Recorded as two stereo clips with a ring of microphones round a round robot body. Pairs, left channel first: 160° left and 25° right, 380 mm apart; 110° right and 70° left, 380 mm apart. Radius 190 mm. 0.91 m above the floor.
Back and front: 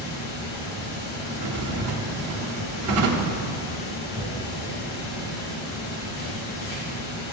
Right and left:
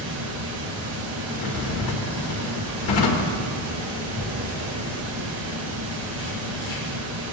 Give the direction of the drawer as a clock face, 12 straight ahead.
3 o'clock.